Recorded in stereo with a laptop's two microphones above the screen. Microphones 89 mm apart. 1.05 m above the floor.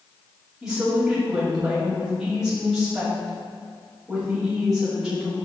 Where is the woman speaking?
5° right (ahead or behind), 2.5 m.